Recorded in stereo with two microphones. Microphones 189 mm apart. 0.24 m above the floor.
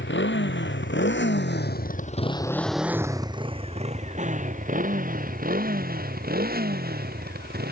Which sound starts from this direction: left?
A motorcycle, at 0.0 s.